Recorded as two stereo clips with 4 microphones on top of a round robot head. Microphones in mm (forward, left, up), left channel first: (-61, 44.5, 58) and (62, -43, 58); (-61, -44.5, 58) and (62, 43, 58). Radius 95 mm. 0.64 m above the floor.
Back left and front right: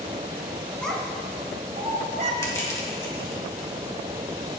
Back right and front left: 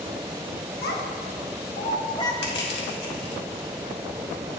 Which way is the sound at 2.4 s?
145° right.